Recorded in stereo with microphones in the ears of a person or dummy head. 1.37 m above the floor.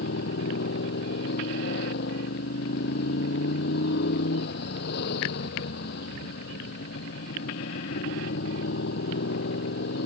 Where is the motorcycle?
55° left (ahead or behind).